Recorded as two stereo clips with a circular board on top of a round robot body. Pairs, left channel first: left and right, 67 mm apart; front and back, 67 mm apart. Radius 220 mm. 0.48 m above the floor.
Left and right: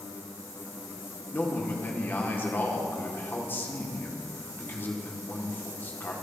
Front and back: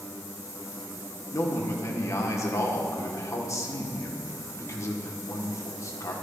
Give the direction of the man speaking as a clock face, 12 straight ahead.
11 o'clock.